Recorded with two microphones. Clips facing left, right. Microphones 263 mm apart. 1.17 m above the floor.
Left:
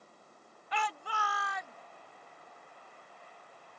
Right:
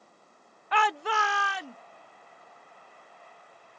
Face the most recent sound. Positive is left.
turn(degrees=-85)